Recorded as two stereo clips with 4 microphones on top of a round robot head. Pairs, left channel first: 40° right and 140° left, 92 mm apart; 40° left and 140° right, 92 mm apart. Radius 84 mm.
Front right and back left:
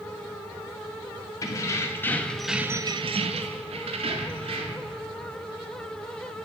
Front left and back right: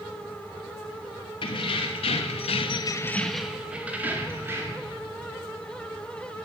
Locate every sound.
1.4 s keys jangling: 15° left, 2 m; by 4.9 s 160° left, 3 m